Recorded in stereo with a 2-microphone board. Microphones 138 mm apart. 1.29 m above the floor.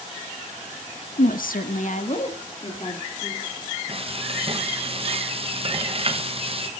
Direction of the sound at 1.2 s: 70° left (ahead or behind).